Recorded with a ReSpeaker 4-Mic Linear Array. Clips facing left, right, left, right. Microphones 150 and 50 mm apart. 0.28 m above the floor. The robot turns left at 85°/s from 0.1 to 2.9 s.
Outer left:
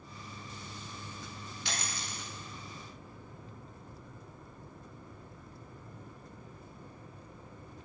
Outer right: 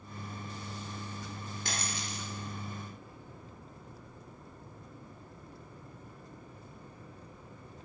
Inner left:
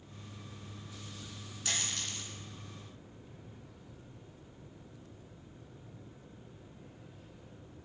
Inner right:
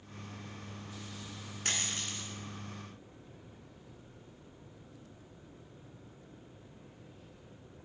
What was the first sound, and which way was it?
A dropped coin, 45° right (ahead or behind).